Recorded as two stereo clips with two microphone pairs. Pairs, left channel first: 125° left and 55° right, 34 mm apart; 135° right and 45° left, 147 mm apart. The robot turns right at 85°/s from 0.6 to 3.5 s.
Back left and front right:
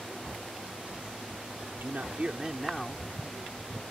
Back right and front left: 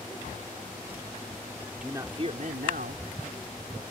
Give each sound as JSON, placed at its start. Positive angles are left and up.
{"t": 1.6, "sound": "a man speaking", "azimuth_deg": -50}